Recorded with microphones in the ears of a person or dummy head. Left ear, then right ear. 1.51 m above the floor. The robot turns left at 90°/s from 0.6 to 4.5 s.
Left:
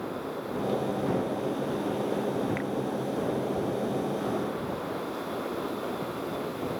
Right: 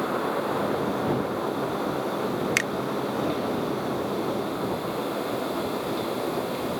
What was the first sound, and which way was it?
A finger snap, 80° right.